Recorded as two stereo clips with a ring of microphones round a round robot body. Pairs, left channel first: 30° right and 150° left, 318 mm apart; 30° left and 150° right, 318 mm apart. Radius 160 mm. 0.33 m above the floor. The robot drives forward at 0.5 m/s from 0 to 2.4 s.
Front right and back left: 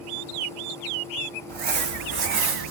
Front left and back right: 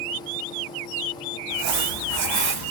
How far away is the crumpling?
About 1.0 m.